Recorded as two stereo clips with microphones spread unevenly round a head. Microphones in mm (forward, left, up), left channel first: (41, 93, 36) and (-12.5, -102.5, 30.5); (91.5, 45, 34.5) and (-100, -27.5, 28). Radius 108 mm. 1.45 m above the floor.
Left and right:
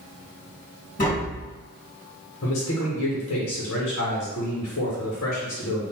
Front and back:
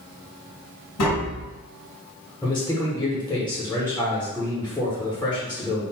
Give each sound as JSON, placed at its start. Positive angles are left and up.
{"t": 1.0, "sound": "tapping", "azimuth_deg": 25, "distance_m": 1.8}
{"t": 2.4, "sound": "a man speaking", "azimuth_deg": 105, "distance_m": 1.0}